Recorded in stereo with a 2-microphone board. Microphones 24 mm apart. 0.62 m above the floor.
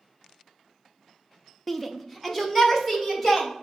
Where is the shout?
5° left (ahead or behind), 0.7 m.